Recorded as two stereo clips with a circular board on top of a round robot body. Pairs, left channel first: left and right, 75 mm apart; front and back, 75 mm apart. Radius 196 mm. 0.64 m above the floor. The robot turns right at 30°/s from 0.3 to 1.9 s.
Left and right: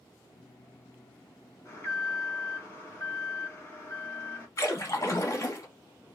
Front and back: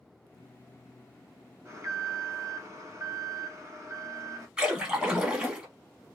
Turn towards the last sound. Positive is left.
turn(degrees=110)